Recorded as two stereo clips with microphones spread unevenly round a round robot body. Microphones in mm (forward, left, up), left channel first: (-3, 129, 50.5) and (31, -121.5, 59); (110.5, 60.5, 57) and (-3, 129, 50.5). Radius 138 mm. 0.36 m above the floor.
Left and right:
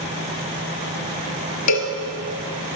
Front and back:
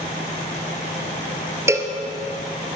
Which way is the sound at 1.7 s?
80° left.